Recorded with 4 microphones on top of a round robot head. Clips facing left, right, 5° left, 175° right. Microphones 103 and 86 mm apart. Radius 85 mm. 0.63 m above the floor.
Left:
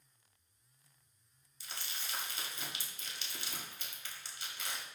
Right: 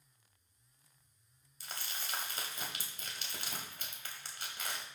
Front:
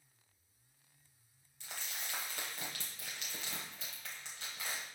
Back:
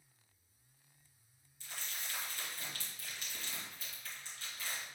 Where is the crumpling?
40° right, 1.4 m.